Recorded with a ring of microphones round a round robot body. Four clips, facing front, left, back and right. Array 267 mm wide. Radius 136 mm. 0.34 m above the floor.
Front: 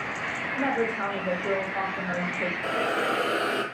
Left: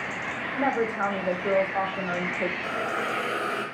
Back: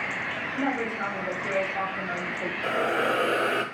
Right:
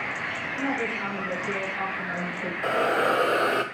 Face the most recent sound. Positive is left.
turn(degrees=-105)